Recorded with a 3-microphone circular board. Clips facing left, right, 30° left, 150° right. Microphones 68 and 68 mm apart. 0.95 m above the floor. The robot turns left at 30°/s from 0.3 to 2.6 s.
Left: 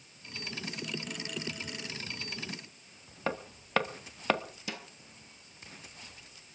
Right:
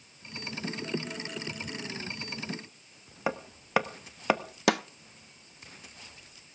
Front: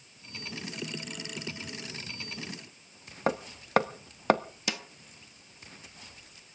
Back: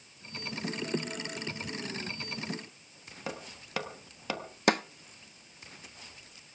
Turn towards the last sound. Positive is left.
turn(degrees=-110)